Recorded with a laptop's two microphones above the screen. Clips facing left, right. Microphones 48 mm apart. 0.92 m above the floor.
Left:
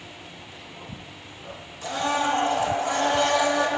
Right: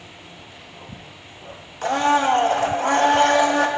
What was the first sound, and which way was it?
A blender, 55° right (ahead or behind).